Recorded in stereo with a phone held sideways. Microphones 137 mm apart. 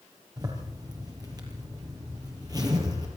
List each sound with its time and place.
0.4 s a zipper: 30° right (ahead or behind), 5 m